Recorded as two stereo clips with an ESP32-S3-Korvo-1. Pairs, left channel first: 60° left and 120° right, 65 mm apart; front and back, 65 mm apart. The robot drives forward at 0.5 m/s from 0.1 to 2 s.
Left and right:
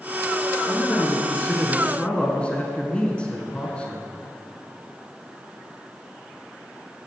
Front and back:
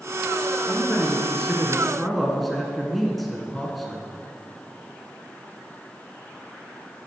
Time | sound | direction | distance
0.7 | a man speaking | 25° left | 1.2 m